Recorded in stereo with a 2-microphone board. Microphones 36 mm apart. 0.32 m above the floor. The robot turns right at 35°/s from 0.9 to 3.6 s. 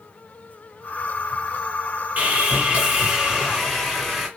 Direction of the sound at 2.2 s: 45° right.